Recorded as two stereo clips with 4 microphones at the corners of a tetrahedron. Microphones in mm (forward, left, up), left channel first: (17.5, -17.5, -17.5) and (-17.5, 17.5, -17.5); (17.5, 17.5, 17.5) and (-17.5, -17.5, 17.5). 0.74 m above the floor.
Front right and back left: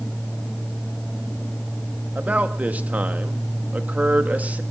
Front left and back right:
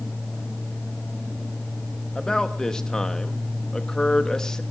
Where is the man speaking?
110° left, 1.0 m.